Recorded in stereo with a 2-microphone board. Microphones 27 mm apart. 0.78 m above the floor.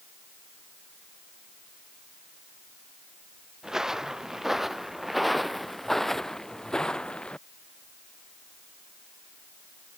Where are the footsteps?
20° right (ahead or behind); by 7.4 s 30° left (ahead or behind).